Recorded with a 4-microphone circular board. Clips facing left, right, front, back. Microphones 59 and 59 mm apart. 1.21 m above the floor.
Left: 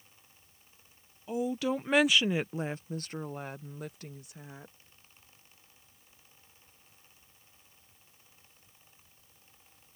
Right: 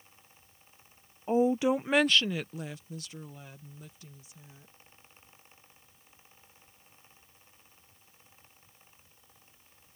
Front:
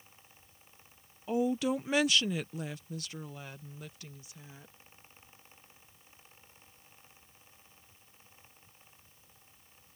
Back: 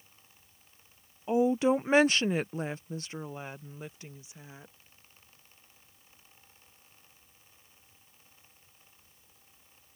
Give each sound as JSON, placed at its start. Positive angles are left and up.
{"t": 1.3, "sound": "a woman speaking", "azimuth_deg": -120}